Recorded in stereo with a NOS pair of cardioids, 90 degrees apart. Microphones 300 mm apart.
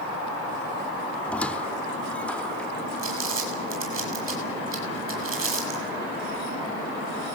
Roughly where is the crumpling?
Ahead right.